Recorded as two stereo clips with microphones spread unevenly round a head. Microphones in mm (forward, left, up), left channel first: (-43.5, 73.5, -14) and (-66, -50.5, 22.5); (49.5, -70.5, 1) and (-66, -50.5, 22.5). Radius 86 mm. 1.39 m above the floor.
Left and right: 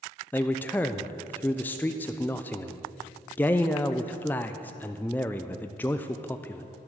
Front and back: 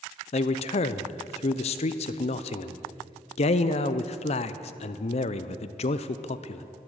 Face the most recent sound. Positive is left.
turn(degrees=10)